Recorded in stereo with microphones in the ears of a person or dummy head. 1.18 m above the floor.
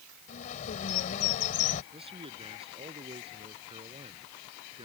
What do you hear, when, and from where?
0.3 s a bird: 45° left (ahead or behind)
1.9 s a man speaking: 25° right (ahead or behind)